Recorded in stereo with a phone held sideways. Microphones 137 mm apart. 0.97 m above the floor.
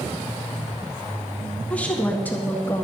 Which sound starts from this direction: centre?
A woman speaking, at 1.7 s.